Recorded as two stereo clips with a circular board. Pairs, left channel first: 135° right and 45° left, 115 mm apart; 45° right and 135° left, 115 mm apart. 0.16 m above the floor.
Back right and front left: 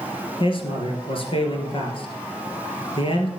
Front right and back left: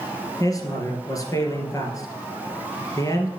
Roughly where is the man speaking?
Right.